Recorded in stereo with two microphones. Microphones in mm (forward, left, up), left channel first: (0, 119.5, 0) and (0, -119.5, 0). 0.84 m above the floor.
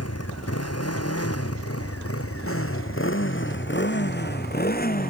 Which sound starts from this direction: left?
A motorcycle, at 0.0 s.